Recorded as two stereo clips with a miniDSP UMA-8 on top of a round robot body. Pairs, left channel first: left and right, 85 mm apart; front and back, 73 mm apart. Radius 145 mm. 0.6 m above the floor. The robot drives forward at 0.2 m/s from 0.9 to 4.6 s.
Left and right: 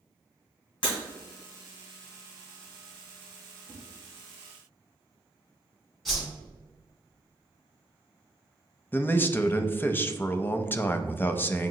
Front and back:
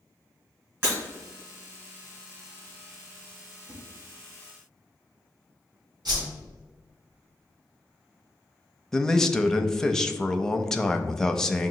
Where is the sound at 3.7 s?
145° left, 1.5 m.